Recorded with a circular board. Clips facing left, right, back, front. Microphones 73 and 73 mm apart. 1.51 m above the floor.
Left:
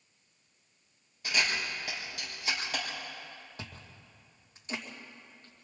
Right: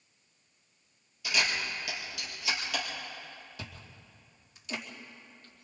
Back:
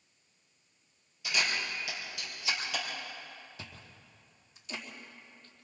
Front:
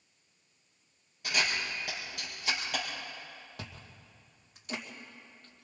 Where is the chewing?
35° left, 2.5 m.